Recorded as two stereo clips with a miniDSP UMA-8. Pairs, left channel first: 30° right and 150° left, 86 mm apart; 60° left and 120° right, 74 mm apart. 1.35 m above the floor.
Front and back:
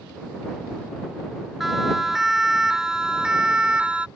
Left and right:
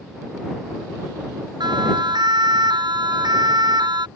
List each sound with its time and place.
1.6 s a siren: 120° right; by 4.1 s 135° right